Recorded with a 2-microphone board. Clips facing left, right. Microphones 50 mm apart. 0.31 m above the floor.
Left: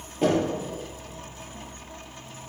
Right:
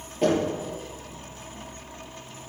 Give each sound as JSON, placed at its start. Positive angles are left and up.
{"t": 0.2, "sound": "knocking", "side_deg": 0, "distance_m": 5.0}